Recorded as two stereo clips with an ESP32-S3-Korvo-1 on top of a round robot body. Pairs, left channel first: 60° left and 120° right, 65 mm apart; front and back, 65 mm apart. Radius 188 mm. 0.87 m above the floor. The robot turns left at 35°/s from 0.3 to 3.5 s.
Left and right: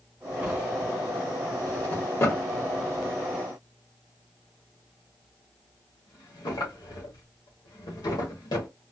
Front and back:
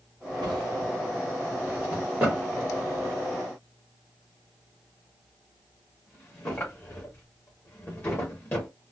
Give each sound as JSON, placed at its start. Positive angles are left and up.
{"t": 0.4, "sound": "a drawer", "azimuth_deg": 170, "distance_m": 1.1}